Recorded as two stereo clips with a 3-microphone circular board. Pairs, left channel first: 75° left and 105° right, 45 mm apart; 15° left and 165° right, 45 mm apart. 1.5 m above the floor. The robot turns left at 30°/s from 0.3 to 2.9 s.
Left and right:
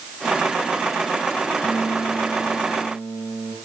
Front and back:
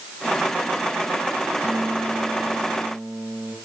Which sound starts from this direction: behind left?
A guitar, at 1.6 s.